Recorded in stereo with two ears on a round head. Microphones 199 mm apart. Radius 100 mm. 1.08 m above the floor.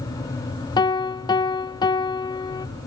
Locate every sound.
0.8 s a piano: 20° left (ahead or behind), 0.6 m